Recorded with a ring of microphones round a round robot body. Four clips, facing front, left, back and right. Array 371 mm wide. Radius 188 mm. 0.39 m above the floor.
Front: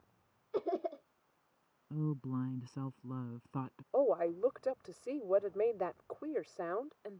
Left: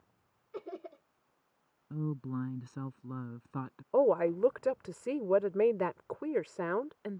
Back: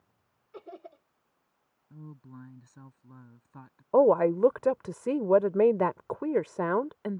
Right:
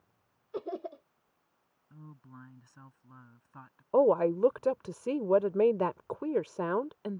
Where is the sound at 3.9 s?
165° right.